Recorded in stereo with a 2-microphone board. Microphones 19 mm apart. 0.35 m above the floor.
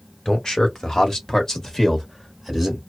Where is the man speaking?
45° left (ahead or behind), 1.3 m; by 2.8 s centre (ahead or behind), 1.2 m.